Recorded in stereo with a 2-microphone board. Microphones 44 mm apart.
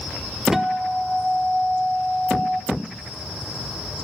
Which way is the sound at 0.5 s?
15° right (ahead or behind).